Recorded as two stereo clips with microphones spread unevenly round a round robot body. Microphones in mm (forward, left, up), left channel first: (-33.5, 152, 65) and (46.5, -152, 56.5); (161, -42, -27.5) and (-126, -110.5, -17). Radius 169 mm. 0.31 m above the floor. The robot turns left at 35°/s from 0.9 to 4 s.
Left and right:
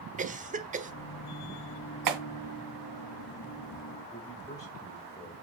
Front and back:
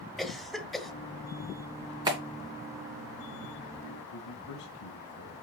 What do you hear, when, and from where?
0.2 s a cough: 70° right, 1.4 m
2.1 s a clap: 90° right, 2.5 m; by 2.2 s 95° right, 2.5 m
4.1 s a man speaking: 25° left, 2.5 m